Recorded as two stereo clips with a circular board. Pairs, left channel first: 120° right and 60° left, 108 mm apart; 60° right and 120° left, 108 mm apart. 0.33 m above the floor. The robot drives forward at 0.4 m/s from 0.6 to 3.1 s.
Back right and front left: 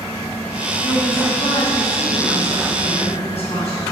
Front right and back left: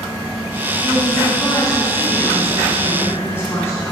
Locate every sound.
0.8 s a woman speaking: 105° right, 2.5 m; by 3.8 s 125° right, 3 m